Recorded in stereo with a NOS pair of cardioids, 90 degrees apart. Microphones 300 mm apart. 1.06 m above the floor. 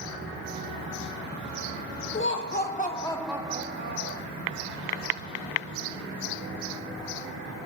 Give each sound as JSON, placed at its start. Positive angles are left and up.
{"t": 2.1, "sound": "laughter", "azimuth_deg": 40, "distance_m": 2.5}